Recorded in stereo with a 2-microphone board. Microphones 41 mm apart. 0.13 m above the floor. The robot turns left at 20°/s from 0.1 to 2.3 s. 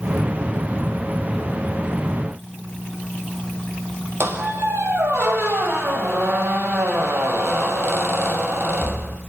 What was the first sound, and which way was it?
A squeak, 65° right (ahead or behind).